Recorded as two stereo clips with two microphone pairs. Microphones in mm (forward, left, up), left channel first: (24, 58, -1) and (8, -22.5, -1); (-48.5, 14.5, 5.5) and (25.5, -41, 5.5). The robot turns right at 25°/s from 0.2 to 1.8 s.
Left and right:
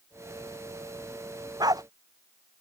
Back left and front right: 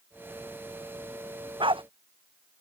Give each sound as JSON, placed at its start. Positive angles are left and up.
{"t": 1.6, "sound": "a dog barking", "azimuth_deg": -65}